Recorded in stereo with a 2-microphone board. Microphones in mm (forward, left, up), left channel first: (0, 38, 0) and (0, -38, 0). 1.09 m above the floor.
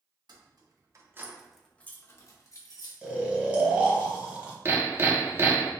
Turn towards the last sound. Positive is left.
turn(degrees=-30)  # may be behind; listen again after turning